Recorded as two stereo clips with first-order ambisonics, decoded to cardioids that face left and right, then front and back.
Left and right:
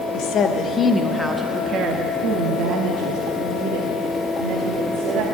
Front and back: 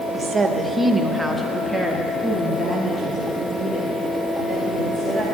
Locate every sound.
0.1 s a woman speaking: 110° left, 0.8 m; by 5.2 s 75° right, 2.5 m